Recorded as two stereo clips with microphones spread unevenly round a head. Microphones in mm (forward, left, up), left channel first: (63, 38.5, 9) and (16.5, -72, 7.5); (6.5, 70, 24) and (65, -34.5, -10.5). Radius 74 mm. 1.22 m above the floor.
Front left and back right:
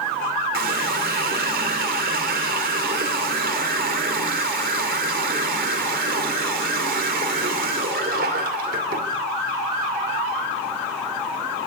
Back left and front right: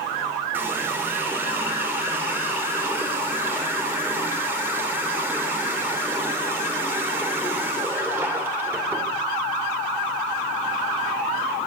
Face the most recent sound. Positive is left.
turn(degrees=-140)